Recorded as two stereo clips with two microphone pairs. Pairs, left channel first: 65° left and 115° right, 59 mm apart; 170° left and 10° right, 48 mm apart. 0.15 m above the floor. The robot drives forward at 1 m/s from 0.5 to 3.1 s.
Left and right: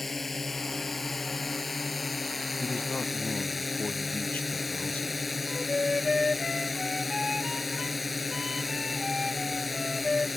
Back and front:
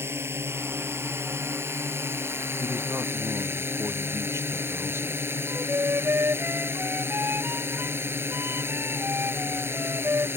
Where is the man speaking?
Straight ahead.